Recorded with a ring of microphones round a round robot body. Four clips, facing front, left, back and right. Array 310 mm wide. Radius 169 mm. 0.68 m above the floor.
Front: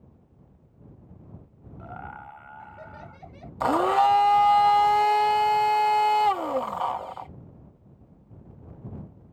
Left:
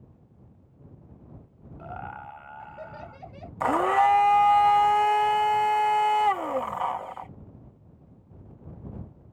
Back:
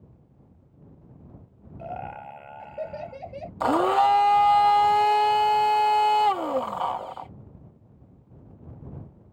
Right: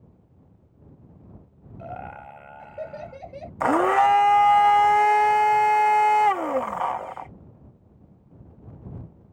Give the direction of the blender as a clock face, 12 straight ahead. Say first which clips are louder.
Right 3 dB, even; 4 o'clock.